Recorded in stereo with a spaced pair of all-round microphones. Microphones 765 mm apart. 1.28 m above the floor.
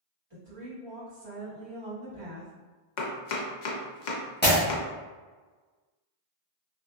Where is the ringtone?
I don't hear a ringtone.